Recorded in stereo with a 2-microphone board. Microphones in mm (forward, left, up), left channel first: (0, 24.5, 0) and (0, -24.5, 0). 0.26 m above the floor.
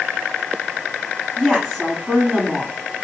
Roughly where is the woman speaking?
Centre.